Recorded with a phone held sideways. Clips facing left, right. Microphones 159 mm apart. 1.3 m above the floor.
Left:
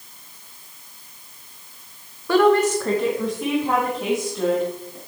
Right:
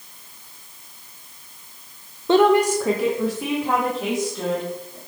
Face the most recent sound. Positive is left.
turn(degrees=5)  # may be behind; listen again after turning